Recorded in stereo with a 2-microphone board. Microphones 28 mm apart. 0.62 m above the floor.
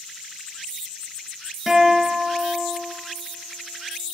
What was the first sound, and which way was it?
A guitar, 5° right (ahead or behind).